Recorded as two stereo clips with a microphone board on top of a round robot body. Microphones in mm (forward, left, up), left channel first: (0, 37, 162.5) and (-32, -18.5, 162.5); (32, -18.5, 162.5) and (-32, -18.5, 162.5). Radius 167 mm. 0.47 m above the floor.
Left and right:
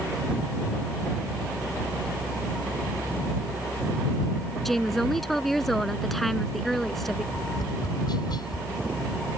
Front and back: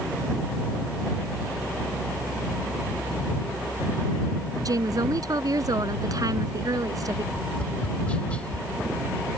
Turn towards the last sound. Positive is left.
turn(degrees=75)